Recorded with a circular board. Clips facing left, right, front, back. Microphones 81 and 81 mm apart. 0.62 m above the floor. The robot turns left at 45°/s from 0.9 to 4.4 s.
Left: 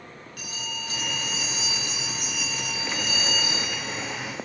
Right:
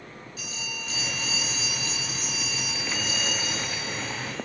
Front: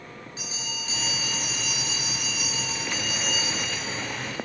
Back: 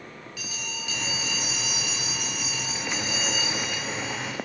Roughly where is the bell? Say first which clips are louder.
Left 2 dB, back 1 dB; ahead left.